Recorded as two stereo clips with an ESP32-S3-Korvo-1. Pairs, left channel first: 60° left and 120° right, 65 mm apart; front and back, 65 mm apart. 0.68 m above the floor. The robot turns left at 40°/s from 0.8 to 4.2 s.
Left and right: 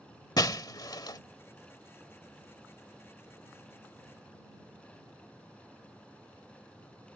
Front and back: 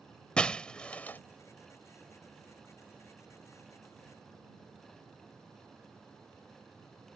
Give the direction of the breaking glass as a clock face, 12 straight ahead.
9 o'clock.